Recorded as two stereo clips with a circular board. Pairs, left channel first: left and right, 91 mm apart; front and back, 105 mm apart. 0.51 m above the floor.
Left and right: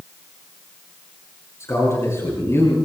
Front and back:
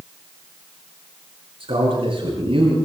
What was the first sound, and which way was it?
A man speaking, 145° left.